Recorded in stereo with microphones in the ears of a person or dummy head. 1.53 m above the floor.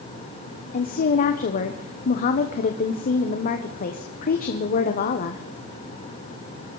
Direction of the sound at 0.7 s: 45° left (ahead or behind).